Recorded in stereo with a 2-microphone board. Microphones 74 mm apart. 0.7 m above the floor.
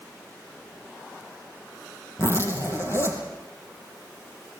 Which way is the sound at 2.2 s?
40° left (ahead or behind).